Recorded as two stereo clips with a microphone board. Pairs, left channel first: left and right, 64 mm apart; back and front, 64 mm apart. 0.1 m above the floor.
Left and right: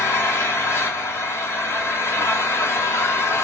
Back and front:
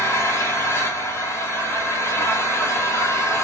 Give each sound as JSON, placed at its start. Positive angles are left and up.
{"t": 0.0, "sound": "an engine running", "azimuth_deg": 135, "distance_m": 1.1}